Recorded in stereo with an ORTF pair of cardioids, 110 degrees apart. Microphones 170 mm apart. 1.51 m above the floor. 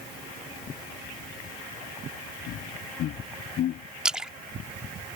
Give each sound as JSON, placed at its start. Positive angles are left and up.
{"t": 2.5, "sound": "laughter", "azimuth_deg": 70}
{"t": 4.0, "sound": "a splash", "azimuth_deg": -5}